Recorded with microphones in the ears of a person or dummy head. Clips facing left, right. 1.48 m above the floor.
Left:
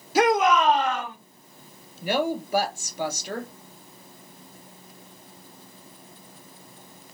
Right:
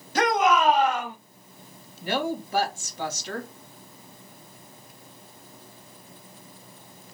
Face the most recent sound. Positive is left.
turn(degrees=10)  # may be behind; listen again after turning